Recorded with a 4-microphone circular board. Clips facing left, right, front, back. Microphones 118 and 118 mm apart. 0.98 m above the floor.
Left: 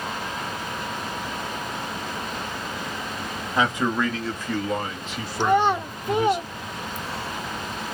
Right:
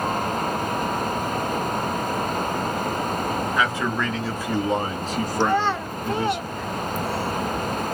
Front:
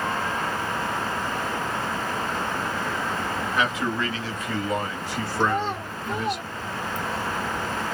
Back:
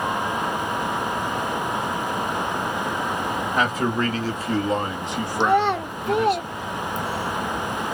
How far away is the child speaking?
About 0.6 m.